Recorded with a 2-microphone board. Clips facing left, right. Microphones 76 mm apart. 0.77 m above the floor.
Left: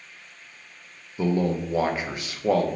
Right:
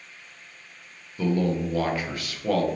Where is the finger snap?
No finger snap in this recording.